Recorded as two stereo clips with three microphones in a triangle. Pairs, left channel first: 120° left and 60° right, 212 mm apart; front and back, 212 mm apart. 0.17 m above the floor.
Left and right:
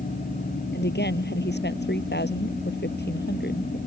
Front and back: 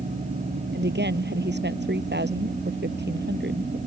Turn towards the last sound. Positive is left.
turn(degrees=150)